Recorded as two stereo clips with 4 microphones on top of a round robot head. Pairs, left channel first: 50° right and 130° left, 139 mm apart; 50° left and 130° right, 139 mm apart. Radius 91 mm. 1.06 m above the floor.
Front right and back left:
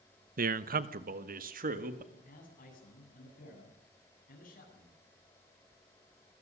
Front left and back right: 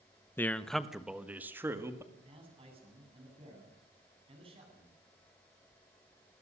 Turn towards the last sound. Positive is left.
turn(degrees=-75)